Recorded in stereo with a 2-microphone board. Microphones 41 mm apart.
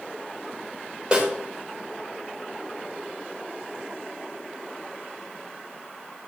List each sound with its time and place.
1.1 s a snare drum: 25° right (ahead or behind), 3 m